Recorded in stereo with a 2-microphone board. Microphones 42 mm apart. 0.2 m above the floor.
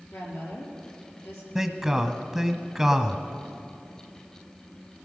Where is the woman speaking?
65° left (ahead or behind), 4 m.